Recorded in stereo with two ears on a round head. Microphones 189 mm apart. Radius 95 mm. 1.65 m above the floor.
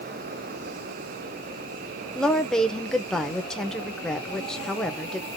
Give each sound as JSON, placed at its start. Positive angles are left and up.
{"t": 2.1, "sound": "a woman speaking", "side_deg": 5, "distance_m": 0.8}